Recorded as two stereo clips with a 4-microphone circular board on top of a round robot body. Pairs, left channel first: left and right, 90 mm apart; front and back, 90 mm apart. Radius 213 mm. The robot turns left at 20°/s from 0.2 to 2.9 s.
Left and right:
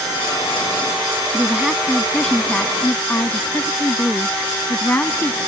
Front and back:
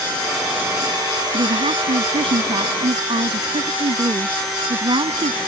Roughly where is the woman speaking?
Behind.